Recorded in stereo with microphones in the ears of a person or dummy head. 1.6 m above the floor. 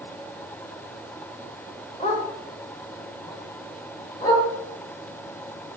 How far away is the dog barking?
About 1.8 m.